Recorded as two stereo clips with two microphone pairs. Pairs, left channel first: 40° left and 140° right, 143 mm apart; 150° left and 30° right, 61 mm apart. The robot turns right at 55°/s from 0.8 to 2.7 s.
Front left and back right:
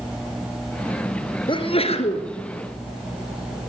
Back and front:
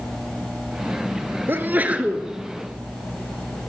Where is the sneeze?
5° left, 2.5 m; by 2.3 s 50° left, 2.5 m.